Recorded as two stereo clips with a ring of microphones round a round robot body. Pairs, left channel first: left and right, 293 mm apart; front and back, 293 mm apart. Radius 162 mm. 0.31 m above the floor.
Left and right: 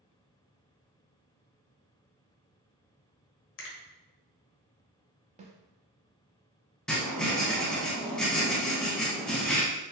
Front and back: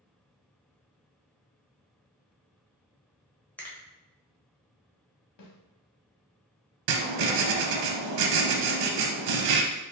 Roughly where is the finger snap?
Left.